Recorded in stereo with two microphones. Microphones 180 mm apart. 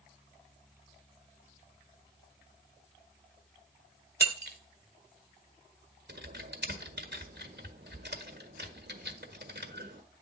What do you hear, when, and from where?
4.2 s breaking glass: 65° right (ahead or behind), 1.1 m
6.1 s typing on a keyboard: 75° right (ahead or behind), 1.4 m